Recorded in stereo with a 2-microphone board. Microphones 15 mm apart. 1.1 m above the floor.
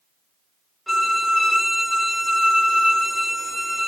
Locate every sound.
0.9 s a violin: 15° left (ahead or behind), 3.5 m